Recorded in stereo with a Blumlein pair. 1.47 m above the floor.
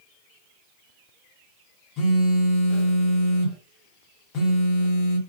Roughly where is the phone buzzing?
Ahead left.